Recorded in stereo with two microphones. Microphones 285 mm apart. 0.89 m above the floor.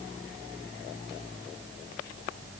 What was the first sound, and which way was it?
Only background noise.